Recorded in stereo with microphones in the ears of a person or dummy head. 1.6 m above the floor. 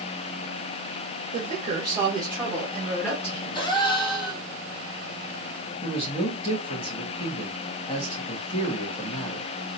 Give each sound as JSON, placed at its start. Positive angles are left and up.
{"t": 1.3, "sound": "a woman speaking", "side_deg": -55, "distance_m": 1.2}
{"t": 3.5, "sound": "a gasp", "side_deg": 30, "distance_m": 1.0}
{"t": 5.8, "sound": "a man speaking", "side_deg": 35, "distance_m": 1.7}